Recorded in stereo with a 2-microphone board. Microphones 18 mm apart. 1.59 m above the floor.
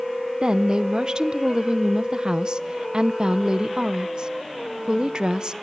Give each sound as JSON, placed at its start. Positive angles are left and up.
{"t": 0.4, "sound": "a woman speaking", "side_deg": -55, "distance_m": 0.7}